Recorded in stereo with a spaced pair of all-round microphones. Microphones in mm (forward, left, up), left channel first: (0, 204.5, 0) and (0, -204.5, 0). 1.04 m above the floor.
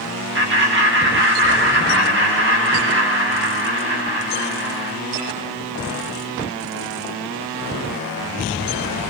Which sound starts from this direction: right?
Laughter, at 0.3 s.